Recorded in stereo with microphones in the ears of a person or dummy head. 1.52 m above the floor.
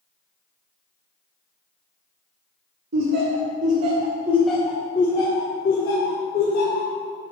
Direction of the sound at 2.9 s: 55° right (ahead or behind).